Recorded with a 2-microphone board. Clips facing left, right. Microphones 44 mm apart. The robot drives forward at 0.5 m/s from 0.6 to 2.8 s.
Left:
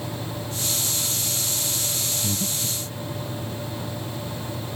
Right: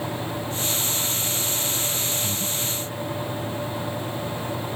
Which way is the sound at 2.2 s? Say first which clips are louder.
Even; 25° left (ahead or behind).